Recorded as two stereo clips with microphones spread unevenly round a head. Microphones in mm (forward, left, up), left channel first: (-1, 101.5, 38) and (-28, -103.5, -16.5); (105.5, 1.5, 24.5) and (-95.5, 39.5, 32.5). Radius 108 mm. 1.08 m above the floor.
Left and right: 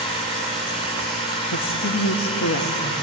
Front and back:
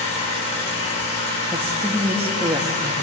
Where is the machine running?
20° left, 9.5 m.